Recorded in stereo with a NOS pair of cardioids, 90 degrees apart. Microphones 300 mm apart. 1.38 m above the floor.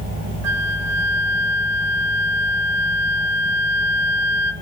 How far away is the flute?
About 2 m.